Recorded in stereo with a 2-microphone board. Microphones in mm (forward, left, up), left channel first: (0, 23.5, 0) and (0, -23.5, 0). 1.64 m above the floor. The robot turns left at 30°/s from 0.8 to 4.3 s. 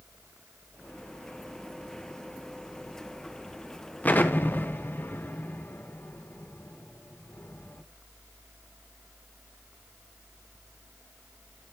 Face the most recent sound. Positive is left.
turn(degrees=40)  # may be behind; listen again after turning